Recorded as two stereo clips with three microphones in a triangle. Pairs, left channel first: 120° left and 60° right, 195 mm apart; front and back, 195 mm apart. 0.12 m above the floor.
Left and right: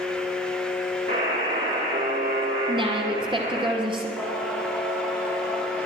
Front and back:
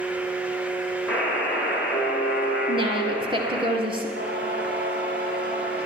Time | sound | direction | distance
1.1 | a buzzer | 85° right | 6 m
2.7 | a woman speaking | 120° right | 2 m
4.2 | singing | 145° right | 5 m